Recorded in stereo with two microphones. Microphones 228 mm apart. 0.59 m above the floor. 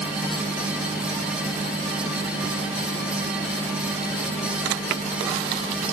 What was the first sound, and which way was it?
Only background noise.